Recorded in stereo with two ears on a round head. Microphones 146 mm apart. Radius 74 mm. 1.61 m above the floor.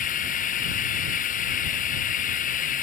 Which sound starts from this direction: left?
Running water, at 0.0 s.